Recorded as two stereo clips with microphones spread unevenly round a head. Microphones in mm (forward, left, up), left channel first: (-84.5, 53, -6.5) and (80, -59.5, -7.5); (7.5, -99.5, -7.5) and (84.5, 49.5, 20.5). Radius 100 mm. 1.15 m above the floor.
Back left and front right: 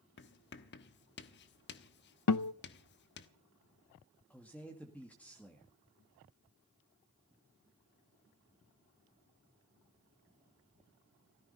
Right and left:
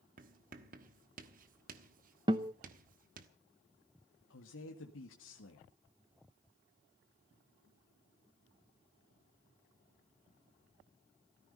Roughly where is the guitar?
Behind left.